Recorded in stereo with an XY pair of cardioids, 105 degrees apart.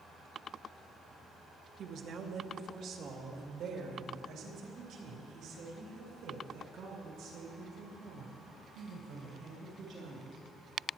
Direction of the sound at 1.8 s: 65° right.